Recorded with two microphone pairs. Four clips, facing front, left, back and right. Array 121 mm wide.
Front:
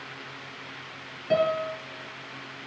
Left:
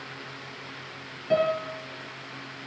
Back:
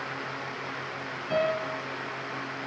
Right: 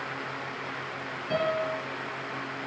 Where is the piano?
35° left, 4.5 m.